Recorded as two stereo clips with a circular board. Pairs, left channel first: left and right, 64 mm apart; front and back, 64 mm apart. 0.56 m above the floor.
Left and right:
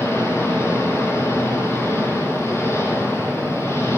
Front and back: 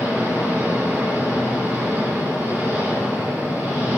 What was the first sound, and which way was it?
An engine running, 130° left.